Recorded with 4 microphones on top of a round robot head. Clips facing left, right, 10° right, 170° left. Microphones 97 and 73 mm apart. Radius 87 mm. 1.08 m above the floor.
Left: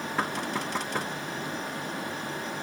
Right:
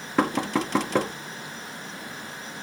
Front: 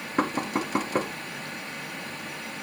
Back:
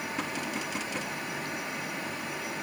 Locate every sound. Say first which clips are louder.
0.2 s knocking: right 8 dB, front 11 dB; 70° right